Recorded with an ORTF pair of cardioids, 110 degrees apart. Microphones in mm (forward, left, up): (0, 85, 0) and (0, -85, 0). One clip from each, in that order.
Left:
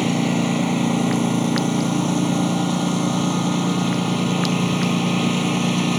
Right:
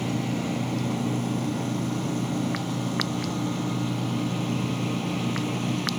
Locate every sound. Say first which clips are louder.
0.0 s a lawn mower: left 8 dB; 60° left